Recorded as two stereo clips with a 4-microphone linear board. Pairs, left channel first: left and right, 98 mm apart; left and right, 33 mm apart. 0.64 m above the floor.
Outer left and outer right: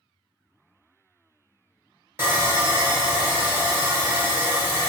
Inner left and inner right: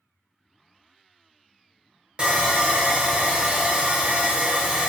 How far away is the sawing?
About 0.7 m.